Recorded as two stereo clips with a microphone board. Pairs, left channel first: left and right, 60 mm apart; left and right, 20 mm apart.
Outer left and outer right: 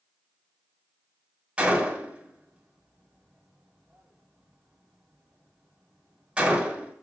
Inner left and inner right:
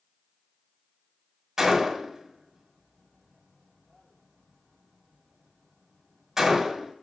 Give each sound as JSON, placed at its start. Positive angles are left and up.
{"t": 1.6, "sound": "a gunshot", "side_deg": -20, "distance_m": 1.1}